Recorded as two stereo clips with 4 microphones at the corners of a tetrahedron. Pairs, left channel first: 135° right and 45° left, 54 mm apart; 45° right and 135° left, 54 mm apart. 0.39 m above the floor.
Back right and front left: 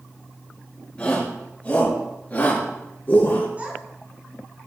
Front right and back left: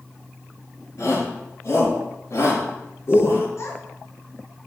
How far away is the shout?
About 5.5 m.